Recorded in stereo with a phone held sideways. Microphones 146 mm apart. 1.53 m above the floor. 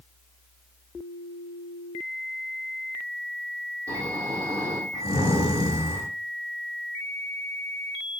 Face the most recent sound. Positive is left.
turn(degrees=-25)  # may be behind; listen again after turning